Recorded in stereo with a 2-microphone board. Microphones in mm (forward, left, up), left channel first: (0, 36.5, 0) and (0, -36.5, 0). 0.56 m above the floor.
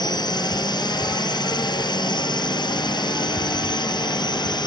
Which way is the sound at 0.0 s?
70° left (ahead or behind).